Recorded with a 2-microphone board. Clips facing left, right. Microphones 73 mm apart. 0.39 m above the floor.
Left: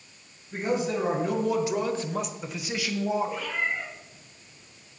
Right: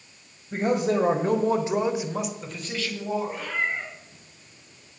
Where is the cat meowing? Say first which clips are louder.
Right 1 dB; 45° right (ahead or behind), 3 m.